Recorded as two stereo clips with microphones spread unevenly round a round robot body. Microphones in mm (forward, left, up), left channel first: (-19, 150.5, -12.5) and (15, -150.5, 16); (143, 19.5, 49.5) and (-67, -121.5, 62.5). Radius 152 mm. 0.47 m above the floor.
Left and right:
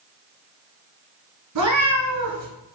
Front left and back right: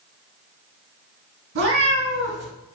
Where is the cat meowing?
115° right, 2.5 m.